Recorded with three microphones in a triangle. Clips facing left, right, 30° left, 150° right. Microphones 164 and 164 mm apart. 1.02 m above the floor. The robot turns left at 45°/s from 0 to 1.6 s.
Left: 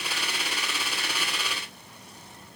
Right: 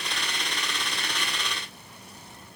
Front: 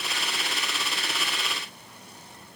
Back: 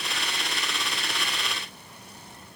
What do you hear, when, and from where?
Only background noise.